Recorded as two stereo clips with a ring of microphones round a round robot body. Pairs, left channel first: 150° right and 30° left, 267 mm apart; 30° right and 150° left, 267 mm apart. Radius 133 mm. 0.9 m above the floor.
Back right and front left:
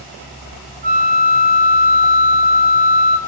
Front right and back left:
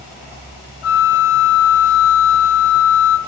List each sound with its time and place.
0.8 s a flute: 20° right, 0.6 m